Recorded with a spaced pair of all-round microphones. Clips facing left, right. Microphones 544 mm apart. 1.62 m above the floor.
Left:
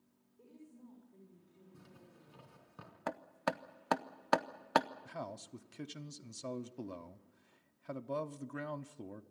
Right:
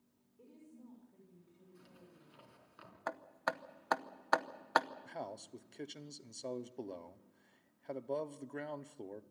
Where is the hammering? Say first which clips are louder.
Left 4 dB; 55° left (ahead or behind), 0.8 m.